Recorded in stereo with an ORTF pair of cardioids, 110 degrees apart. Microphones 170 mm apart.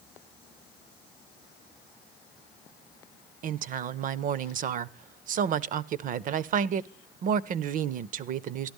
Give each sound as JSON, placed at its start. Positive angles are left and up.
{"t": 3.4, "sound": "a woman speaking", "azimuth_deg": -50, "distance_m": 0.5}